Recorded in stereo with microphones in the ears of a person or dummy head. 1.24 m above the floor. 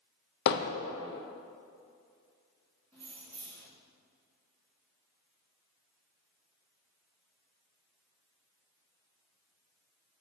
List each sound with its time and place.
0.5 s hammering: 65° left (ahead or behind), 0.6 m
2.9 s keys jangling: 10° left (ahead or behind), 1.6 m